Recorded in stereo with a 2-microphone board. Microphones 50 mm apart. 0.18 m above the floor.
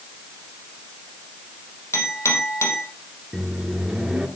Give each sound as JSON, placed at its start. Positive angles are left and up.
{"t": 1.9, "sound": "a clink", "side_deg": 75, "distance_m": 5.0}
{"t": 3.3, "sound": "a microwave", "side_deg": -10, "distance_m": 2.5}